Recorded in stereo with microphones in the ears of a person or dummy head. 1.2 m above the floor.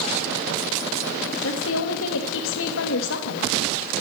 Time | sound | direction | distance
1.4 | a woman speaking | 65° left (ahead or behind) | 1.4 m